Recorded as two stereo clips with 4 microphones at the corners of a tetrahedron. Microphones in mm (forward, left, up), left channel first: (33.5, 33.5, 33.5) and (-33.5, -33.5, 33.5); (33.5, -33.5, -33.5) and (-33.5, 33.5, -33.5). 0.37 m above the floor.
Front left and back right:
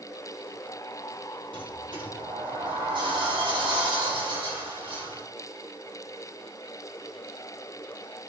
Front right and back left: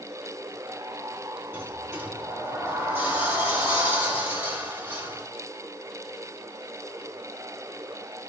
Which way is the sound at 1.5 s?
160° right.